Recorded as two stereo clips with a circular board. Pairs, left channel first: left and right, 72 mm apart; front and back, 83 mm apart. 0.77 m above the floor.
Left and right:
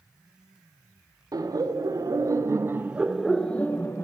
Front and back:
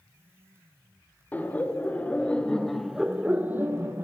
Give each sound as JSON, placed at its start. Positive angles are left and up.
{"t": 1.3, "sound": "laughter", "azimuth_deg": -65, "distance_m": 1.2}